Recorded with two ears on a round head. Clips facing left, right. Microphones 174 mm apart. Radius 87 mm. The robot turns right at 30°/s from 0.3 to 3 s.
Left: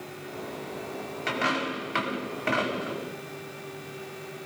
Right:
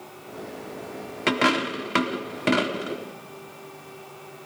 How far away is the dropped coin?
About 1.4 m.